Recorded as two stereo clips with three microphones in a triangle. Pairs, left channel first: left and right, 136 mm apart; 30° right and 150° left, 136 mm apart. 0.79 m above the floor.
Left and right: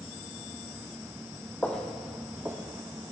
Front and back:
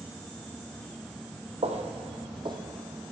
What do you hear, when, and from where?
1.6 s footsteps: 165° left, 1.3 m; by 3.1 s 145° right, 1.6 m